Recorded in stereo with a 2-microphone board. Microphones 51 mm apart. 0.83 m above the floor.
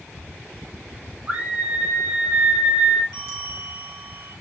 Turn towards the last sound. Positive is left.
turn(degrees=-65)  # may be behind; listen again after turning